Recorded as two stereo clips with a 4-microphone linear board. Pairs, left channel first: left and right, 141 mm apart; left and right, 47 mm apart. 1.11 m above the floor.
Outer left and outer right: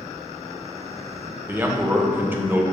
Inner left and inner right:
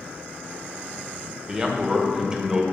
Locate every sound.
1.5 s a man speaking: 15° right (ahead or behind), 0.8 m